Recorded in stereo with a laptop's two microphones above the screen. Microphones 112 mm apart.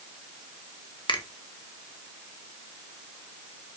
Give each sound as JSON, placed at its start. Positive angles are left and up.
{"t": 1.1, "sound": "a finger snap", "side_deg": 45, "distance_m": 1.3}